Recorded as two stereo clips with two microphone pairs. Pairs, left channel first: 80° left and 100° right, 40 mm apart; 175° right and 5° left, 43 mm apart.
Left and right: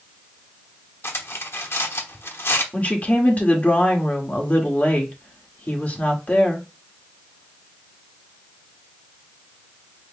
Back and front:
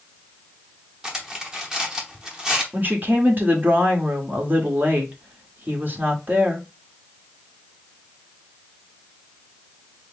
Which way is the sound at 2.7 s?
35° left.